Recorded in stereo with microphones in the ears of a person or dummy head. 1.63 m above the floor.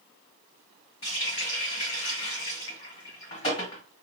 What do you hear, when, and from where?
1.0 s a running tap: 40° left (ahead or behind), 1.9 m